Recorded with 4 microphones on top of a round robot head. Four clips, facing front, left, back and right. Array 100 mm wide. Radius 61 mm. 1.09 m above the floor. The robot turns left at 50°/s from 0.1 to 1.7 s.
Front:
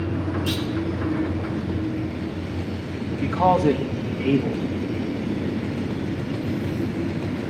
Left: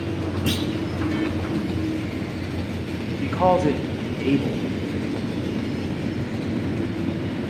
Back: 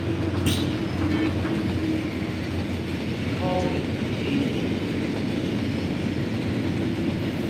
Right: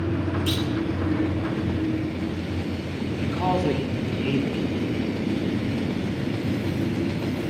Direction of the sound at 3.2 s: 45° left.